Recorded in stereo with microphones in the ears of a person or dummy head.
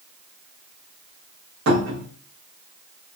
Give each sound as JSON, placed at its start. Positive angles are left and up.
{"t": 1.7, "sound": "a cupboard door", "side_deg": -70, "distance_m": 0.9}